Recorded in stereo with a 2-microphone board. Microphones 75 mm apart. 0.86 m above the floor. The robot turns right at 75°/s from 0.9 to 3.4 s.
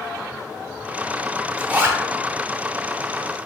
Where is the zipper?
170° right, 0.7 m; by 2.0 s 135° right, 0.7 m.